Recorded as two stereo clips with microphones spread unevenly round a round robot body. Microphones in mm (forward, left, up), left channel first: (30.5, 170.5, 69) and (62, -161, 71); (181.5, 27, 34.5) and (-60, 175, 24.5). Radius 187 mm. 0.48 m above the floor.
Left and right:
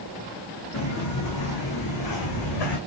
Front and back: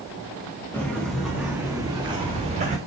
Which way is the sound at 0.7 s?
50° left.